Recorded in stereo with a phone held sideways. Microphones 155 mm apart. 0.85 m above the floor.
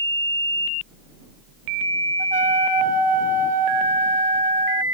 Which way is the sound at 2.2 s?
55° right (ahead or behind).